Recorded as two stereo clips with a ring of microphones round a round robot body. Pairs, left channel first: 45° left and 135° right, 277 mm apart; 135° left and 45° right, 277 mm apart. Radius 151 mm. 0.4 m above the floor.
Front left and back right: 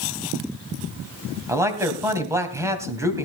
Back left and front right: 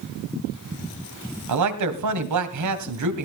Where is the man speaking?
55° right, 2.5 m.